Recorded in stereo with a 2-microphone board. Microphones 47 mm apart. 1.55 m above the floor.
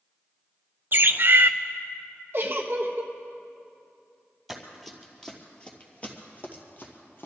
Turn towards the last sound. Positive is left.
turn(degrees=50)  # may be behind; listen again after turning